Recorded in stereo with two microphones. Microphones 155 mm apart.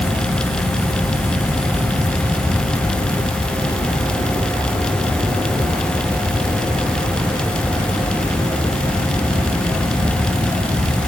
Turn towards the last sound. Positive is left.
No sound to turn to.